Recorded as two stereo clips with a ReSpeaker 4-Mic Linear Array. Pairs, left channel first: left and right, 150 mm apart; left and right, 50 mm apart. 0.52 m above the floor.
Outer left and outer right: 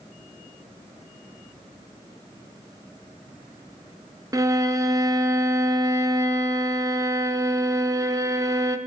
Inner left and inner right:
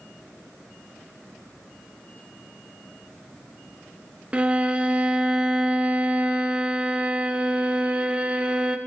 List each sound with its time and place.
4.3 s a violin: 20° right (ahead or behind), 0.6 m